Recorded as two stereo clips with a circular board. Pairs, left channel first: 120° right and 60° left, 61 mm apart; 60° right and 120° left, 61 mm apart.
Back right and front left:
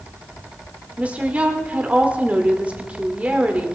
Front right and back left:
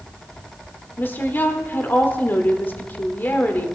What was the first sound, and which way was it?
A woman speaking, 5° right.